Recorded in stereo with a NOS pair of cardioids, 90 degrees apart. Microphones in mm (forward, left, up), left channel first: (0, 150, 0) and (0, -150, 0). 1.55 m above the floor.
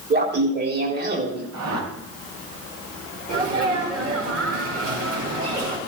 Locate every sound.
0.1 s laughter: 35° right, 4 m
1.5 s a whoosh: 60° right, 4.5 m
3.3 s a sneeze: 50° right, 5 m